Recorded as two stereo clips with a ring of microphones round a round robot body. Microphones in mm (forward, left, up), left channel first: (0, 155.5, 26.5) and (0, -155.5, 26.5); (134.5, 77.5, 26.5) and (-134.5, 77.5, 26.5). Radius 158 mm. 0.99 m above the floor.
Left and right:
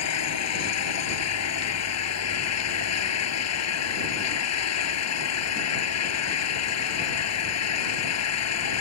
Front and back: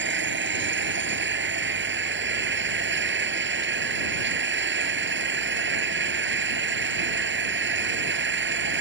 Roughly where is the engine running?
Behind left.